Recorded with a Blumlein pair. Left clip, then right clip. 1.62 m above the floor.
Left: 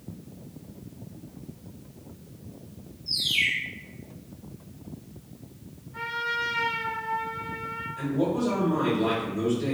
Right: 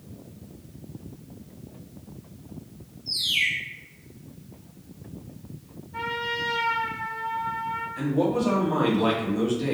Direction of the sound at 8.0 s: 30° right.